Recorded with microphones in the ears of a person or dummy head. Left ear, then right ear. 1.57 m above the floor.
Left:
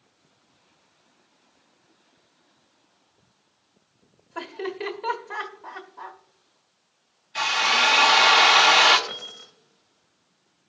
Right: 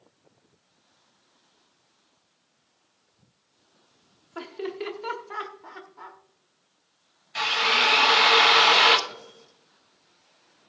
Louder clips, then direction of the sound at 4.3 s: Left 2 dB; 10° left (ahead or behind).